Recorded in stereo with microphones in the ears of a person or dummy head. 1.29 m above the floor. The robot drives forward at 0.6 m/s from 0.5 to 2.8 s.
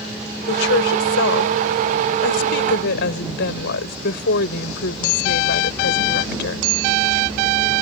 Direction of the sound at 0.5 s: 75° left (ahead or behind).